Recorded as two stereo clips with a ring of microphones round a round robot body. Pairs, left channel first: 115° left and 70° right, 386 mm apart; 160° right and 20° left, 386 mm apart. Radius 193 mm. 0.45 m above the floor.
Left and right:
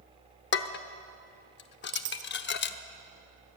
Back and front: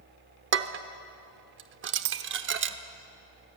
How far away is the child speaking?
No child speaking in this recording.